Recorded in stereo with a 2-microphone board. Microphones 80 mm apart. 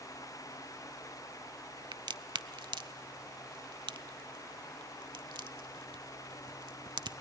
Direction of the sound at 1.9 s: 75° right (ahead or behind).